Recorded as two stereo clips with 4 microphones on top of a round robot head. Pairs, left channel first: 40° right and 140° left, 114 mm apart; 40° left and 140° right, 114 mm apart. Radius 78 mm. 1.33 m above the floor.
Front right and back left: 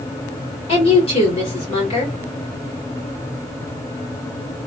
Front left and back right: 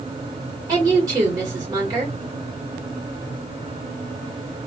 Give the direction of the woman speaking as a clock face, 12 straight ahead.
3 o'clock.